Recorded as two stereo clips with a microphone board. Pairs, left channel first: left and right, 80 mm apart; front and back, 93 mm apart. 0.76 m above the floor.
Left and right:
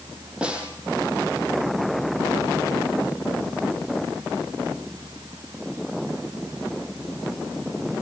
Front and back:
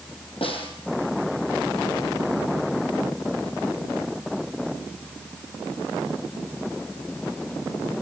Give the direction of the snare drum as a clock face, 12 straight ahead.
12 o'clock.